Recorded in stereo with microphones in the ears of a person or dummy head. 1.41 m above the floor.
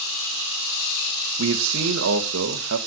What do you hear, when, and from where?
1.4 s a man speaking: 90° right, 1.7 m